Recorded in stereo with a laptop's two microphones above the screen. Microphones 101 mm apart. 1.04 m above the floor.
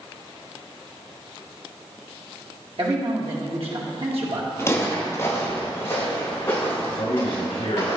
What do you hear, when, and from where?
2.8 s a man speaking: 65° right (ahead or behind), 1.8 m
4.6 s footsteps: 25° left (ahead or behind), 1.5 m
7.0 s a man speaking: 80° left, 2.5 m